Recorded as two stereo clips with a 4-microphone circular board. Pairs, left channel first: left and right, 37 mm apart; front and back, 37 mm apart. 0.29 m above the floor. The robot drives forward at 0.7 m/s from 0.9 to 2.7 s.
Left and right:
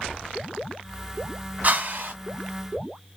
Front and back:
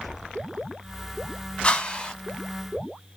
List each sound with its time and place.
1.6 s a whoosh: 50° right, 1.4 m; by 2.1 s 70° right, 1.2 m